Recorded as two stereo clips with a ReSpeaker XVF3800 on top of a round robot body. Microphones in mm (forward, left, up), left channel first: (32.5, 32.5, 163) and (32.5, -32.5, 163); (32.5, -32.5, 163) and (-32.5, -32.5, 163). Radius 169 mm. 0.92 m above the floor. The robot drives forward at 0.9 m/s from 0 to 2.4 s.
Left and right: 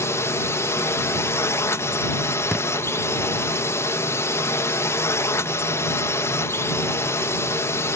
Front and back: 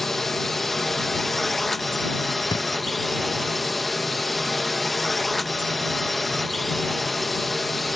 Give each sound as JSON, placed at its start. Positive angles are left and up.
{"t": 0.0, "sound": "a drone", "azimuth_deg": 85}
{"t": 2.5, "sound": "a thud", "azimuth_deg": 0}